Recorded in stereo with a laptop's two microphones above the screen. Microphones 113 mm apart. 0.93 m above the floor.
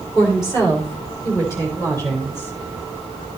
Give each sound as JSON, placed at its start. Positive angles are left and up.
{"t": 0.1, "sound": "a woman speaking", "side_deg": 25, "distance_m": 3.0}